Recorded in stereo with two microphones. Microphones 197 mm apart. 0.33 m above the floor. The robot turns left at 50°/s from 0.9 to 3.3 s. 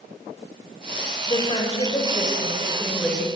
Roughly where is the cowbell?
I don't hear a cowbell.